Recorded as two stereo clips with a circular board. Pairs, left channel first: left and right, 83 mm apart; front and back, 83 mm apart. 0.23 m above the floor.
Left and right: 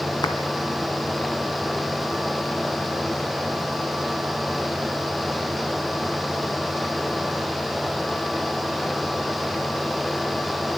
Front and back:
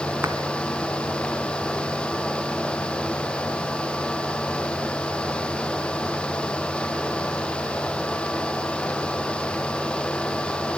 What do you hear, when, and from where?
0.2 s a clap: 120° left, 2 m